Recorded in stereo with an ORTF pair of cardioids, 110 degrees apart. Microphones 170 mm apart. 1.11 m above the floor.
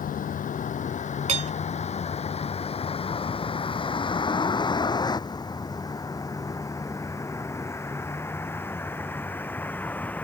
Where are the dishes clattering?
40° right.